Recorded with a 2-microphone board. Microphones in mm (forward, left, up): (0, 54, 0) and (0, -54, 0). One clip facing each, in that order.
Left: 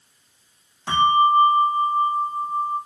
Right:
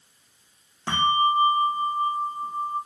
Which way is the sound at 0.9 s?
60° right (ahead or behind).